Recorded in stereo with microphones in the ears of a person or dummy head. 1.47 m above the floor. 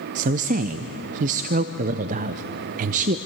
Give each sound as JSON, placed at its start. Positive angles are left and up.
{"t": 0.1, "sound": "a woman speaking", "side_deg": -45, "distance_m": 0.6}